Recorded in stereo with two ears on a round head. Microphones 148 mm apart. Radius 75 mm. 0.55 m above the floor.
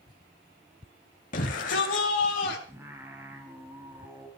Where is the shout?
55° left (ahead or behind), 2.5 m.